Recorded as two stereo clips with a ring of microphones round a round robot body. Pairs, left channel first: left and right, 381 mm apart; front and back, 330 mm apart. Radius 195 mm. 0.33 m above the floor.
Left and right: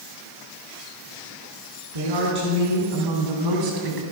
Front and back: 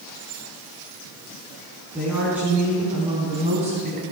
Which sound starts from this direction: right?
A woman speaking, at 1.9 s.